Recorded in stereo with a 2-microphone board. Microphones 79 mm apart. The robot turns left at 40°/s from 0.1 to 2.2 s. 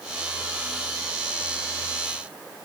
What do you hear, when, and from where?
Only background noise.